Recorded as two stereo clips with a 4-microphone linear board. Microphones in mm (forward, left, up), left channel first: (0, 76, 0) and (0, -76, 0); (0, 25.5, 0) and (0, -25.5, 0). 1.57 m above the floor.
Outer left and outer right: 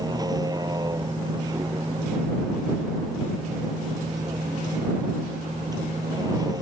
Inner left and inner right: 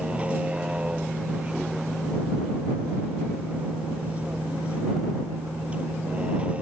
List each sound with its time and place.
0.0 s a vehicle: 25° right (ahead or behind)